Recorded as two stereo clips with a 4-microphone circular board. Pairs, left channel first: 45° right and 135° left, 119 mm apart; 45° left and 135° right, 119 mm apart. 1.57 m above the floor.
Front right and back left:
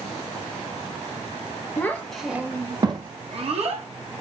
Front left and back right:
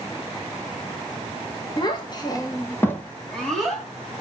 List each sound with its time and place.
1.8 s a child speaking: 20° left, 0.8 m; by 3.9 s 135° left, 1.2 m